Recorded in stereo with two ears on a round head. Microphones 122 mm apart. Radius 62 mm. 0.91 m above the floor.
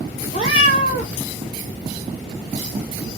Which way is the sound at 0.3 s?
55° left (ahead or behind).